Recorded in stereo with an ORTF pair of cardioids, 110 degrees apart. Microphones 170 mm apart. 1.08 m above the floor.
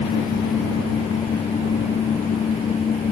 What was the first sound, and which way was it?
A fan, 35° left.